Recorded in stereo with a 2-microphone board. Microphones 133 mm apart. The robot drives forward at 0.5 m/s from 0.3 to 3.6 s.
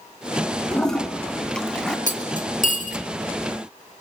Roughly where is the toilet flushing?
Centre.